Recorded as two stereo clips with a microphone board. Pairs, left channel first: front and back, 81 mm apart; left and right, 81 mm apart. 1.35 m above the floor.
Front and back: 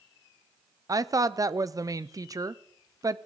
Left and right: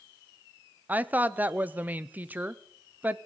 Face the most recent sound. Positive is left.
turn(degrees=-155)